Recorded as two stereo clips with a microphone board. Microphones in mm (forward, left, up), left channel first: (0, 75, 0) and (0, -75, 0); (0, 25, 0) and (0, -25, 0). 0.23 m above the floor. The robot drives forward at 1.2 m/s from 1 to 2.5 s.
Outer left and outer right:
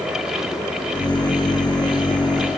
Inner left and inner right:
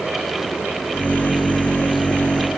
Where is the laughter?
I don't hear laughter.